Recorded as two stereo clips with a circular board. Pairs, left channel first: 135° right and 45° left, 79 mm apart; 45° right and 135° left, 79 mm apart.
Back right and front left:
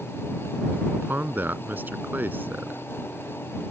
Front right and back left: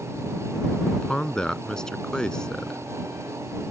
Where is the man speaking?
25° left.